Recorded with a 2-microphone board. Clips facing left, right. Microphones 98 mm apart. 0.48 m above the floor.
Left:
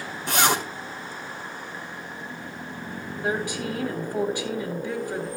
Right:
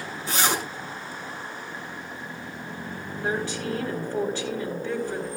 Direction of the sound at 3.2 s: 15° left (ahead or behind).